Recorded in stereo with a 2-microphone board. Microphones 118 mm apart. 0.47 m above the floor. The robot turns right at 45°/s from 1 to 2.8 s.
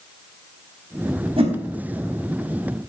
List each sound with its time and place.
1.4 s a whoosh: 50° right (ahead or behind), 3.5 m; by 1.6 s 55° right (ahead or behind), 3.5 m